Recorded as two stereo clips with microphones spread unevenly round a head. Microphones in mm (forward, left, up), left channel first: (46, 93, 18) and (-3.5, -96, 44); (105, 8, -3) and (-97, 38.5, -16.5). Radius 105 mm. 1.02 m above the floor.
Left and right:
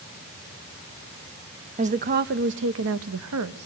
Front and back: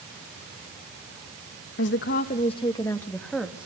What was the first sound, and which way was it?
A woman speaking, 45° right.